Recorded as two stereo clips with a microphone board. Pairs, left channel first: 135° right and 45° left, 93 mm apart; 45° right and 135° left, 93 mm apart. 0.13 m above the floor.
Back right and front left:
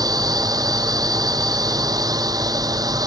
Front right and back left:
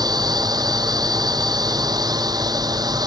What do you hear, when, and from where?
0.0 s a drone: 90° left